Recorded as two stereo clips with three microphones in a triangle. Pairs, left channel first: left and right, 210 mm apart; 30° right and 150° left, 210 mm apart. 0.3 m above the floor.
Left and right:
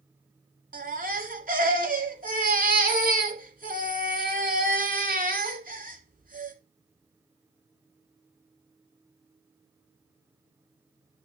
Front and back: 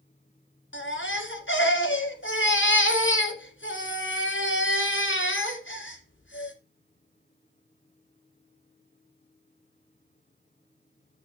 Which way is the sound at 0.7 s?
45° right.